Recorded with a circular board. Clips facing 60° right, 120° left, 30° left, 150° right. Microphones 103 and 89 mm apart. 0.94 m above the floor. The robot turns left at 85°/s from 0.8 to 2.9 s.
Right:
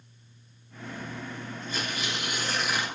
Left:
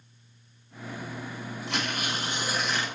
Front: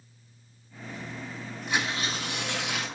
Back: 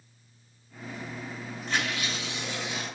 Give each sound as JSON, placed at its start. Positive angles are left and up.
{"t": 1.7, "sound": "tearing paper", "azimuth_deg": 115, "distance_m": 9.0}